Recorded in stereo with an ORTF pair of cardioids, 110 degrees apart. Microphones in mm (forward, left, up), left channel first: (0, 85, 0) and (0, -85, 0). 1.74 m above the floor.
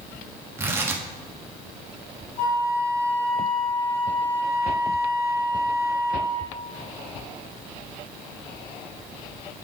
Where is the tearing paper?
15° right, 1.2 m.